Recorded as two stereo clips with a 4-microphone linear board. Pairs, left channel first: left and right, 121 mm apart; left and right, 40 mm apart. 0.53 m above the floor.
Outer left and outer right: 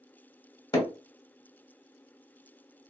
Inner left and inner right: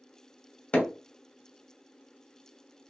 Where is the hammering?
35° left (ahead or behind), 0.9 m.